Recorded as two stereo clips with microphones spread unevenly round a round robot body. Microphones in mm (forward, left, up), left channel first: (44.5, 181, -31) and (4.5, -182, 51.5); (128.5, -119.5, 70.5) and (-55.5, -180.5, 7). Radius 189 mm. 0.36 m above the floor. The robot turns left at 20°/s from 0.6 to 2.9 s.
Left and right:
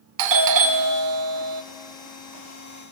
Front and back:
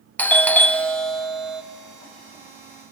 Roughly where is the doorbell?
Right.